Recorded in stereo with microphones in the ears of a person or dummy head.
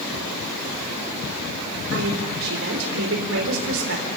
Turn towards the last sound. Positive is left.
turn(degrees=-80)